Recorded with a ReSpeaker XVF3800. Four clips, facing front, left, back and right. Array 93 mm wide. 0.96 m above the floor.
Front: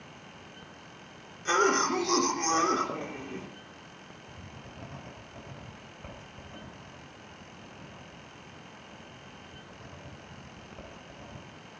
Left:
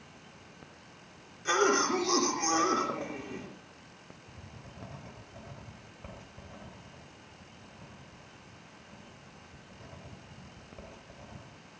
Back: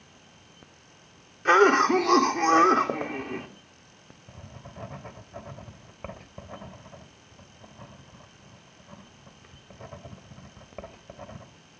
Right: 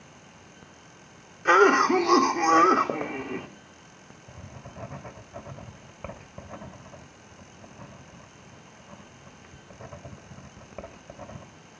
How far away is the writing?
About 2.5 m.